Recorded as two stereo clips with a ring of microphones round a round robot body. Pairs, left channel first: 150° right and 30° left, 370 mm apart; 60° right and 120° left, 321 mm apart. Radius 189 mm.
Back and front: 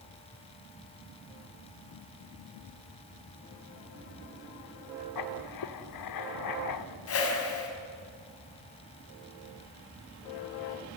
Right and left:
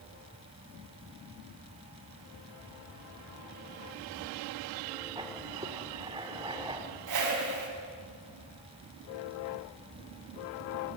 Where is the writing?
165° right, 1.8 m.